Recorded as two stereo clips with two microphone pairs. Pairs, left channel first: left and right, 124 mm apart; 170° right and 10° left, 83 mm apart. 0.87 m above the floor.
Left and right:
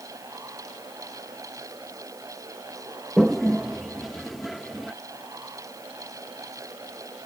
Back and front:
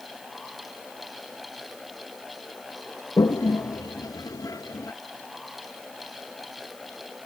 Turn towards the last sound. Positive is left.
turn(degrees=175)